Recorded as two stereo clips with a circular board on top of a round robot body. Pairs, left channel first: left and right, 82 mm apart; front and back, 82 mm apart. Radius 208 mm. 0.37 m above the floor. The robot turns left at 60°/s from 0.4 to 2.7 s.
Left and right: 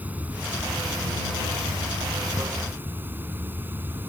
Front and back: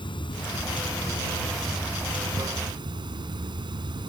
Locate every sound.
0.0 s running water: 20° right; by 4.1 s 155° right